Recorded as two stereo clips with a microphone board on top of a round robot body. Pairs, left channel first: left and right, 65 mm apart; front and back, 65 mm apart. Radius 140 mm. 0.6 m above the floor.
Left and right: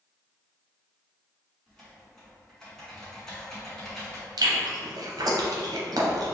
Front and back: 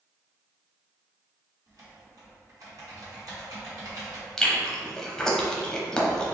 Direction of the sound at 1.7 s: 175° left.